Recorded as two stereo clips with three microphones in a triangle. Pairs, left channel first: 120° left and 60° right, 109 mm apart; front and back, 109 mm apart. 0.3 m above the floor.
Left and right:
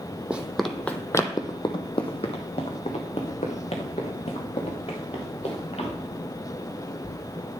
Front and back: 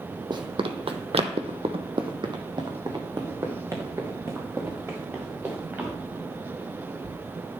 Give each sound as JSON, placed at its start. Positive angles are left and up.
{"t": 0.3, "sound": "running footsteps", "azimuth_deg": -140, "distance_m": 0.8}